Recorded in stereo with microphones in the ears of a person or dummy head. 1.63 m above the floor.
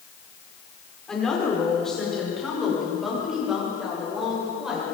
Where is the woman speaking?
5° left (ahead or behind), 5.5 m; by 4.8 s 5° right (ahead or behind), 8 m.